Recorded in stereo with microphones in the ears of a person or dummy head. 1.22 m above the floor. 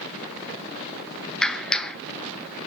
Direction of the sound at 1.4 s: 5° left (ahead or behind).